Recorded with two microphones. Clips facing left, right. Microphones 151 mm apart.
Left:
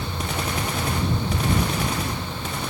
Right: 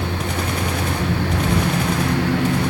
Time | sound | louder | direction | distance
0.0 | a lawn mower | right 5 dB | 85° right | ?